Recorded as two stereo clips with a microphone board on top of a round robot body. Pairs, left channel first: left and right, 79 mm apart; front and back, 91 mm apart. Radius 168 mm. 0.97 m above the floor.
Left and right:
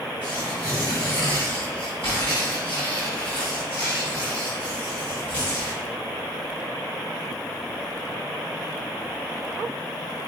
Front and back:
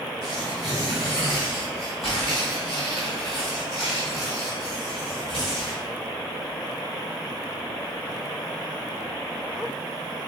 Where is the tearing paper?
90° left, 1.1 m.